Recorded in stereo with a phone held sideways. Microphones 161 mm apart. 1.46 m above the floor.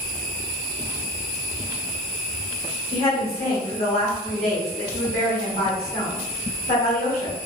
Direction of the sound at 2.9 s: 75° left (ahead or behind).